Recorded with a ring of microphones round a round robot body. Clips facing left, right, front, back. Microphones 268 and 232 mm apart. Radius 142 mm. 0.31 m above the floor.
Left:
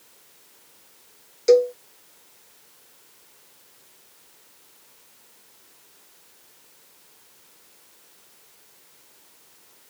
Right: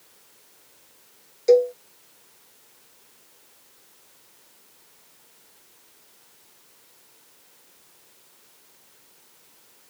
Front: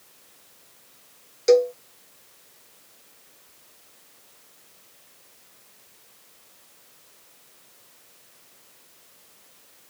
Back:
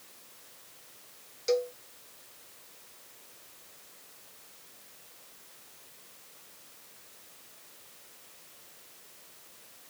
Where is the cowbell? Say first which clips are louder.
Left 1 dB, front 12 dB; 20° left.